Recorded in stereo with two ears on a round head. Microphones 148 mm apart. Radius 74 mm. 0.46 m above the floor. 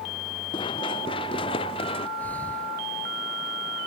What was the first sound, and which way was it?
Running footsteps, 30° left (ahead or behind).